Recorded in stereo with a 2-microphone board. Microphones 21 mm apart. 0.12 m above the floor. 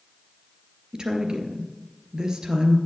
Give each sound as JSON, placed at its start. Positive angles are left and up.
{"t": 0.9, "sound": "a woman speaking", "side_deg": -35, "distance_m": 2.0}